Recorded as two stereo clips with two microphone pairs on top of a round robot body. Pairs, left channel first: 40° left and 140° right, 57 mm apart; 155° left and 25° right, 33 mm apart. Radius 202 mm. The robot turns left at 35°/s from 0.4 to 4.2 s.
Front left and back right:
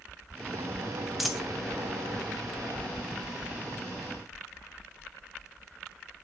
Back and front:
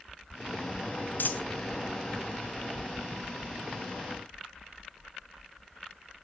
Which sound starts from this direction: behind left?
A dropped coin, at 1.2 s.